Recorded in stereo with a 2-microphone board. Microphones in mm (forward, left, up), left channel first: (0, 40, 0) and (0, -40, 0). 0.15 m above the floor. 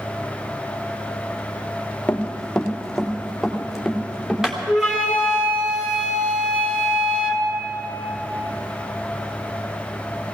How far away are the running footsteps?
About 1.8 m.